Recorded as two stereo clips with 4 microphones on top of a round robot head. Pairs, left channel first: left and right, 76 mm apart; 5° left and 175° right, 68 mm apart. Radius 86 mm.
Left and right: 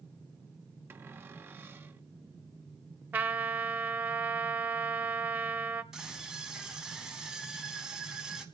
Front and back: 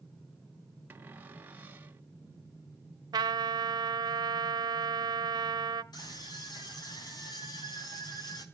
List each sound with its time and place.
0.9 s a cupboard door: 125° right, 1.6 m
3.1 s a trumpet: 155° right, 1.1 m
5.9 s a scream: 10° right, 4.5 m